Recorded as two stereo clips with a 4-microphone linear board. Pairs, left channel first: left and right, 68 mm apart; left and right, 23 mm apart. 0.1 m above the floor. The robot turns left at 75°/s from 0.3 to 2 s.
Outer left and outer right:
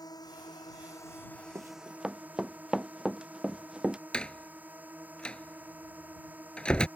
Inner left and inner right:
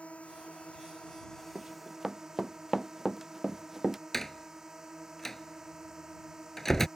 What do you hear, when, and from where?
0.0 s a drone: 100° left; by 7.0 s 25° right
1.6 s running footsteps: 45° right (ahead or behind); by 4.0 s 10° right (ahead or behind)
4.1 s a door slam: 15° left (ahead or behind)